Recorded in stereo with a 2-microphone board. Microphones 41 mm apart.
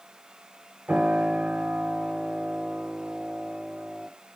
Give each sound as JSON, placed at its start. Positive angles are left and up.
{"t": 0.9, "sound": "a piano", "side_deg": -35, "distance_m": 1.1}